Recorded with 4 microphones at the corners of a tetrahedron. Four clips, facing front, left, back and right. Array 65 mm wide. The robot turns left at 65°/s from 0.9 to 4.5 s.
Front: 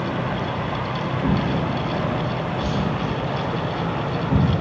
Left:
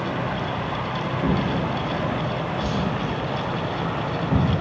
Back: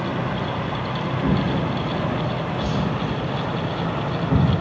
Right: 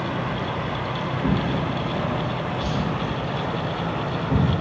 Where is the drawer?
95° left, 0.8 m; by 4.5 s 115° right, 0.8 m.